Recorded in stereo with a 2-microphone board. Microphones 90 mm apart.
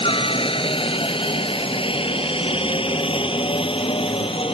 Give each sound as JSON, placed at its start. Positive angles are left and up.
{"t": 0.0, "sound": "a helicopter", "side_deg": 70}